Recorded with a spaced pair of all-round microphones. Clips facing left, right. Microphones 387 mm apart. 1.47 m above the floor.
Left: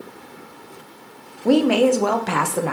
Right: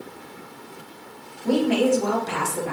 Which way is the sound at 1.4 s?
85° left.